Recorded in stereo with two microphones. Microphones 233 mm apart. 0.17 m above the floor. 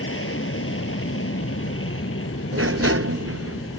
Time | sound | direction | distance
0.0 | an aircraft | 65° left (ahead or behind) | ?
2.5 | a sliding door | 75° right (ahead or behind) | ?